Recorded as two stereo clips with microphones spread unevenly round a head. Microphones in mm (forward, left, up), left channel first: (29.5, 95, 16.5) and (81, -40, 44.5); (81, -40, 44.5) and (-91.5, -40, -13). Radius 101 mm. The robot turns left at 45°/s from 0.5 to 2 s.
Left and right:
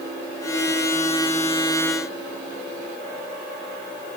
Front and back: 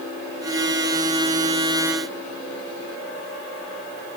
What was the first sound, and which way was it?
Only background noise.